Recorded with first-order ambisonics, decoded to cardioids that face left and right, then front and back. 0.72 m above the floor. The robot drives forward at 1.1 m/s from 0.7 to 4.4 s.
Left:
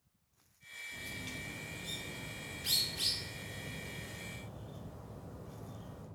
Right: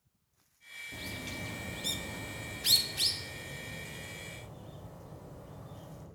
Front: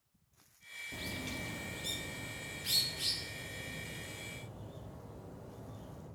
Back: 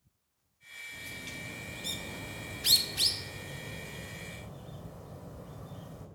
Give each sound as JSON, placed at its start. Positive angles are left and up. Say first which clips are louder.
{"t": 0.9, "sound": "a bird", "louder": "right 3 dB, front 1 dB", "azimuth_deg": -40, "distance_m": 1.3}